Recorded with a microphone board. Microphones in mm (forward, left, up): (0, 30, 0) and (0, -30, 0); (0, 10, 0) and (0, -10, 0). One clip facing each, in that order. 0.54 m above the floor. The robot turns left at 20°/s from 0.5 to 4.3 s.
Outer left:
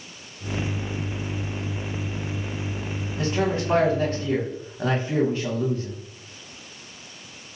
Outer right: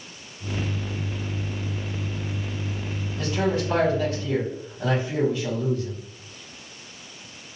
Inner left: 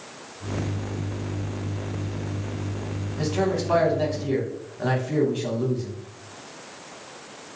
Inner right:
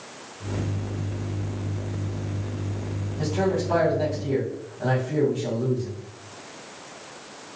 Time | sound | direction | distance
3.2 | a man speaking | 35° left (ahead or behind) | 1.0 m